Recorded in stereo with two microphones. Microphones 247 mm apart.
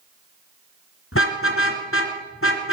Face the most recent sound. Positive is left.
turn(degrees=55)  # may be behind; listen again after turning